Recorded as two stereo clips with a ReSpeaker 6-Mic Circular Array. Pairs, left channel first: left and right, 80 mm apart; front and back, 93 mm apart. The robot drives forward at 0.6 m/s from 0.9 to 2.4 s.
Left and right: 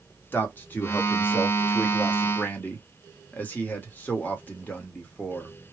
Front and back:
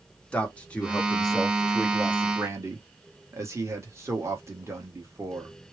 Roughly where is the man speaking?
Ahead left.